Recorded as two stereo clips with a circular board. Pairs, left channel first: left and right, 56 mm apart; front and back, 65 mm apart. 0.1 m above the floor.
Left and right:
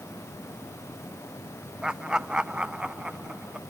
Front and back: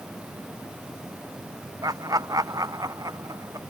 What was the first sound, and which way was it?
Laughter, 165° right.